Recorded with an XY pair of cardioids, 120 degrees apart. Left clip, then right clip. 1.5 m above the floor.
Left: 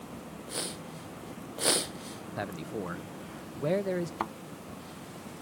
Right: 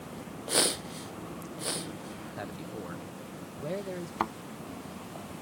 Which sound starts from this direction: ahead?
A thud, at 4.2 s.